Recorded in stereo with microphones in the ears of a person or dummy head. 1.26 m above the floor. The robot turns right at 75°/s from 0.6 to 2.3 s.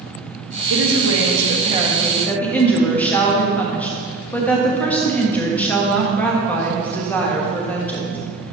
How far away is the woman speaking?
About 1.8 m.